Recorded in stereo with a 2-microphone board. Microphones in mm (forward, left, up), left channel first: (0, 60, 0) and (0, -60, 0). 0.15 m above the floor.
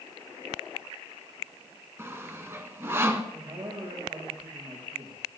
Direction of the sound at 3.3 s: 45° right (ahead or behind).